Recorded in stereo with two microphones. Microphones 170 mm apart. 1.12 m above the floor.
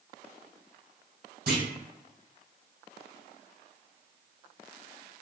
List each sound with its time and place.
1.5 s a clunk: 65° right (ahead or behind), 2.0 m